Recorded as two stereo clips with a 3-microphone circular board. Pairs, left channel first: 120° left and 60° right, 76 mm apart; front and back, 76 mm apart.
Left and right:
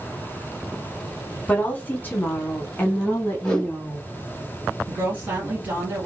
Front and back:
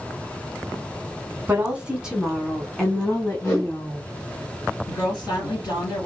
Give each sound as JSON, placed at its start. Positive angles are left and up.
{"t": 1.5, "sound": "a woman speaking", "azimuth_deg": 150, "distance_m": 1.1}
{"t": 3.4, "sound": "a whoosh", "azimuth_deg": 50, "distance_m": 1.5}
{"t": 4.9, "sound": "a woman speaking", "azimuth_deg": 0, "distance_m": 2.5}